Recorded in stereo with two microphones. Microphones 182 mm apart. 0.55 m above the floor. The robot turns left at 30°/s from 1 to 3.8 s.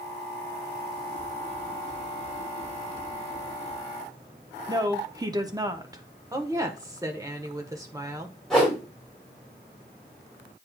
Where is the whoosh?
Centre (ahead or behind), 5.5 m.